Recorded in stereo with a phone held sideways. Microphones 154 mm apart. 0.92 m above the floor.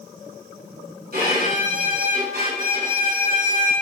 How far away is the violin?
About 3.5 m.